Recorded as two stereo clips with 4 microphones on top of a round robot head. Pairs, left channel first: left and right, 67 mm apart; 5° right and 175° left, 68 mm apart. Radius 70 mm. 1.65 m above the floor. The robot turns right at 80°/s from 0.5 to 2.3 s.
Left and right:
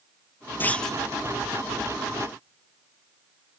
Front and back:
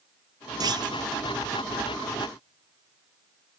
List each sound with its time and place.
0.6 s a clunk: 150° left, 0.6 m; by 1.0 s straight behind, 0.6 m